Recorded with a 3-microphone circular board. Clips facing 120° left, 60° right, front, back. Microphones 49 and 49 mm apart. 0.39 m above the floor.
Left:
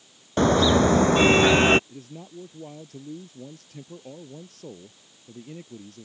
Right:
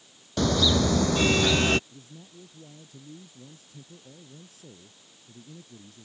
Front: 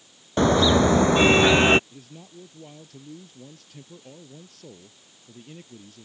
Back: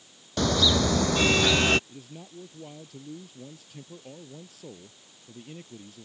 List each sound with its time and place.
0.4 s a car horn: 65° left
1.9 s a man speaking: 95° left